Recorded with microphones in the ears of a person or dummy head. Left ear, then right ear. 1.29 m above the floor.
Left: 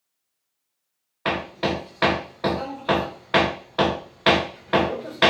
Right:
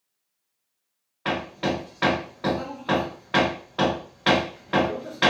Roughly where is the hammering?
Left.